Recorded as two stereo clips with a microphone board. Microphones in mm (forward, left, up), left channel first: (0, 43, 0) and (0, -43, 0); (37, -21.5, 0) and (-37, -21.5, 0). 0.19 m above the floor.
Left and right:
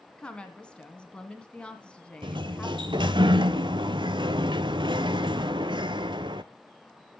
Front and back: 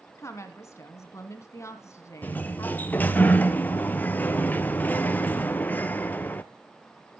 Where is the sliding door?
70° right, 0.7 m.